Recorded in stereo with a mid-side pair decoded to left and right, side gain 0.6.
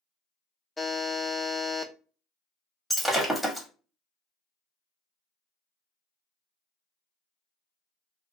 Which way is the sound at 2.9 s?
Straight ahead.